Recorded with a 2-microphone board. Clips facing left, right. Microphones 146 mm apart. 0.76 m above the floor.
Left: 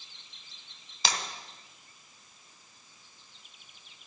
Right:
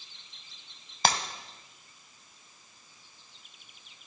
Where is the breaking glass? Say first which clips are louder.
Right 6 dB; 55° right (ahead or behind), 1.5 m.